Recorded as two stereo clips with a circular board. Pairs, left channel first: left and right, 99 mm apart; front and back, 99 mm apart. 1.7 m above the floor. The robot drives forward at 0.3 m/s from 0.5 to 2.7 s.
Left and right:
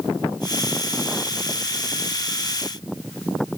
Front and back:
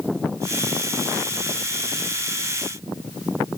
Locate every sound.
Only background noise.